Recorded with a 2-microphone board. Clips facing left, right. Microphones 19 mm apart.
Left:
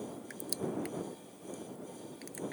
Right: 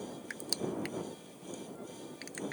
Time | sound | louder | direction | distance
0.3 | crushing | right 2 dB | 25° right (ahead or behind) | ?